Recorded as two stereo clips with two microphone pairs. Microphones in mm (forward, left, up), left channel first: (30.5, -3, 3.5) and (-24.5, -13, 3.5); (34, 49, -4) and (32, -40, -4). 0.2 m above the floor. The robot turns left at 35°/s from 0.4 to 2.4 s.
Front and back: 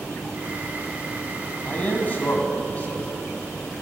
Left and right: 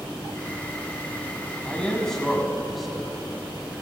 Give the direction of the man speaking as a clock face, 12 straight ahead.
11 o'clock.